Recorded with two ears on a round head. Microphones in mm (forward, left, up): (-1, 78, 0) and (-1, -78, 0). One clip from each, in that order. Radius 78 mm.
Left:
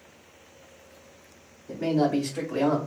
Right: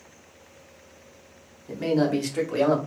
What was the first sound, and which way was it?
A man speaking, 30° right (ahead or behind).